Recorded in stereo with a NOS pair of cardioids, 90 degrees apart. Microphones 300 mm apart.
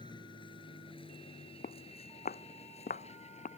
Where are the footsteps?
30° left.